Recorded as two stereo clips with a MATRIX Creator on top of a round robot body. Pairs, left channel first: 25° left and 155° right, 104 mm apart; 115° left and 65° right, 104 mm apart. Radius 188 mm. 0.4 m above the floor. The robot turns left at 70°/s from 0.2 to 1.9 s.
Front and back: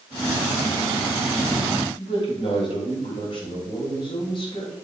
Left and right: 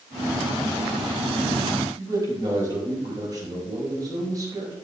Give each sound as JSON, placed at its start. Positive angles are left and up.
{"t": 2.0, "sound": "a man speaking", "azimuth_deg": -15, "distance_m": 3.5}